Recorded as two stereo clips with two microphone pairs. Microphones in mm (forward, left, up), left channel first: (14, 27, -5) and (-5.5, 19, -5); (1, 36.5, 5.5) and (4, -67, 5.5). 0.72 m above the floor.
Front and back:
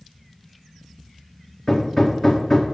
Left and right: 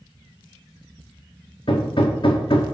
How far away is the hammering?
About 1.1 m.